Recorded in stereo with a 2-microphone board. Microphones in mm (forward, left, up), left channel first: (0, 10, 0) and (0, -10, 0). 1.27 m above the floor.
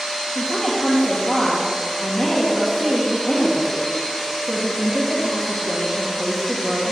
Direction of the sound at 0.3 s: 35° left (ahead or behind).